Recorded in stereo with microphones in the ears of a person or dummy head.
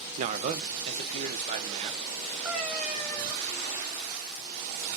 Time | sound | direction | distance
0.2 | a man speaking | 45° right (ahead or behind) | 0.8 m
2.5 | a cat meowing | 5° right (ahead or behind) | 4.5 m